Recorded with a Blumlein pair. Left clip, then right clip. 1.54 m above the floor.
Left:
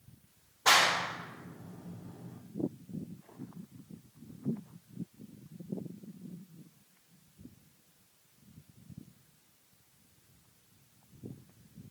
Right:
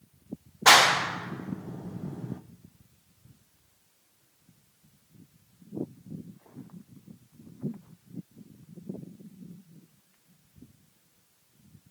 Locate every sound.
0.7 s a clap: 65° right, 0.9 m